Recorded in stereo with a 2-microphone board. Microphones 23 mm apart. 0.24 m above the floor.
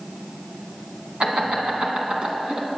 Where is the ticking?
I don't hear ticking.